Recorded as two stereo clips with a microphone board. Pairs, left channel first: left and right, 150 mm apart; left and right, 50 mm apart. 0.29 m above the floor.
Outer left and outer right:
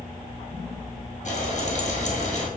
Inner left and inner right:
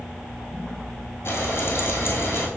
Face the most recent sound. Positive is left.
turn(degrees=50)  # may be behind; listen again after turning